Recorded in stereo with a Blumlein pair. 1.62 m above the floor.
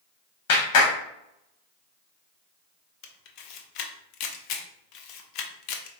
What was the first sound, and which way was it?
A clap, 50° left.